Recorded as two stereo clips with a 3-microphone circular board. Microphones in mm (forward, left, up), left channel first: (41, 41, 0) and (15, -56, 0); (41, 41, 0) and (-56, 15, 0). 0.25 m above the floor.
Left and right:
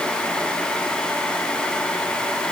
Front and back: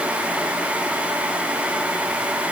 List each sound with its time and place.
Only background noise.